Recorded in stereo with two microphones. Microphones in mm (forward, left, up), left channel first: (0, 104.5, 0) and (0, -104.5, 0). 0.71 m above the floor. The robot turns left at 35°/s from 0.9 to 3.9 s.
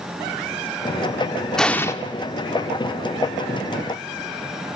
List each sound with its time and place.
1.6 s an explosion: centre (ahead or behind), 0.5 m; by 1.9 s 15° left (ahead or behind), 0.5 m